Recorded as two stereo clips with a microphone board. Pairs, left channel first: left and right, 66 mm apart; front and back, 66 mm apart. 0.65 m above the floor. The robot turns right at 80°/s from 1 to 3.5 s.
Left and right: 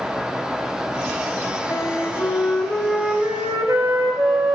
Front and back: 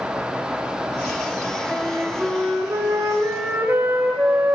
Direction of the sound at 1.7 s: 90° left.